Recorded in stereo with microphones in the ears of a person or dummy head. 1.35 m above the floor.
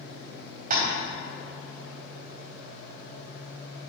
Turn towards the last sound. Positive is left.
turn(degrees=-50)  # may be behind; listen again after turning